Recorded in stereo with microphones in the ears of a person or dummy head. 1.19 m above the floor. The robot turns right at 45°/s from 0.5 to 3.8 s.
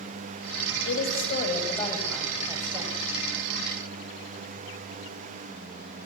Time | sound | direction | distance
0.8 | a woman speaking | 120° left | 7 m